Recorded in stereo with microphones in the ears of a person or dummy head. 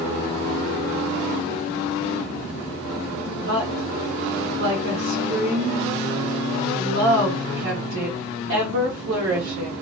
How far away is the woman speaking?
About 1.3 m.